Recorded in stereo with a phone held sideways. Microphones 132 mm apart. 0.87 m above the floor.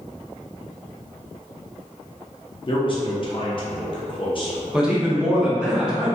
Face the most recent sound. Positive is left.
turn(degrees=-5)  # may be behind; listen again after turning